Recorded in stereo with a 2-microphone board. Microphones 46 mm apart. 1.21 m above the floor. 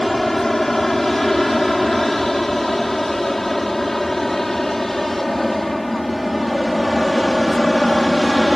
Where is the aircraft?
5° left (ahead or behind).